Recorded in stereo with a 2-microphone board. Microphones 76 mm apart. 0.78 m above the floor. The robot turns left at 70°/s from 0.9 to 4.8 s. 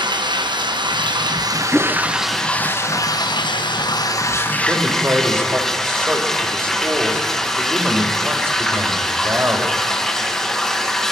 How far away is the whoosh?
About 0.7 m.